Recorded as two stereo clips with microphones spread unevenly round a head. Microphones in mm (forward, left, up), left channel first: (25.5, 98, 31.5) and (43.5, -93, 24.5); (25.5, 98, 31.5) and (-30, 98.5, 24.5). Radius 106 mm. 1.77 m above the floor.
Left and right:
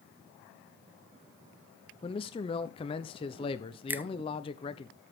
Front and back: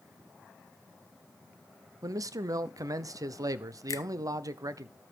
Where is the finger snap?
5° right, 0.7 m.